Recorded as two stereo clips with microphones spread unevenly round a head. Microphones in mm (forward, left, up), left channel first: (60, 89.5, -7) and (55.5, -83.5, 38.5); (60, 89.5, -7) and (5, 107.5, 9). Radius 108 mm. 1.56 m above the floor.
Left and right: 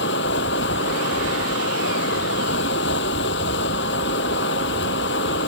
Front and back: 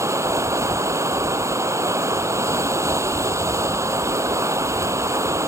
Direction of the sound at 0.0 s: 135° left.